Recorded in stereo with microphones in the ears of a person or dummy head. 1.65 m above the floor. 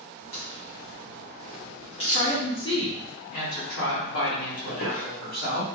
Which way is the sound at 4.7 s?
55° left (ahead or behind).